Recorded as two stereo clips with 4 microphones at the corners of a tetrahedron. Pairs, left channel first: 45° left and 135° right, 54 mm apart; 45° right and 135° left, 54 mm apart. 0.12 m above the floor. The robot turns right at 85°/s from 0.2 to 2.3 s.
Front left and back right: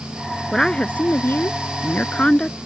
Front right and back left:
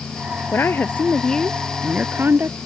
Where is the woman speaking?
40° right; by 2.6 s 110° left.